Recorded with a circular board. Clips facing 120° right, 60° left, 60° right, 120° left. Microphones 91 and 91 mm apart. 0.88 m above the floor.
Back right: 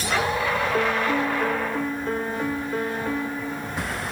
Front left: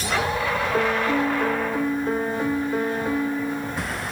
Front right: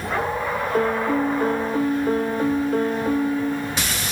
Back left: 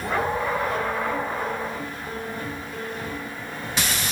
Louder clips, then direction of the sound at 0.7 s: Front left 3 dB, front right 5 dB; 20° right.